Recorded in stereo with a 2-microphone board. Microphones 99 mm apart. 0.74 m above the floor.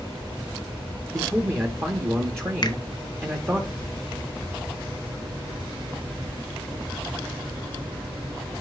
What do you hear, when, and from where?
1.1 s a man speaking: 25° right (ahead or behind), 1.2 m
2.6 s a finger snap: 45° left (ahead or behind), 1.0 m